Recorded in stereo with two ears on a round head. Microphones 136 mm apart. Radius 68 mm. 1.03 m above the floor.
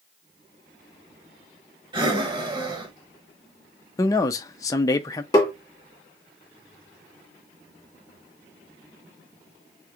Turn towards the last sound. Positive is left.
turn(degrees=20)  # may be behind; listen again after turning